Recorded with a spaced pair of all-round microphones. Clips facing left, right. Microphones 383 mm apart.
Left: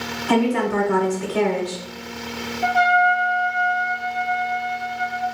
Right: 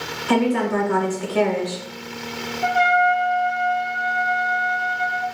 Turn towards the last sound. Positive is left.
turn(degrees=55)  # may be behind; listen again after turning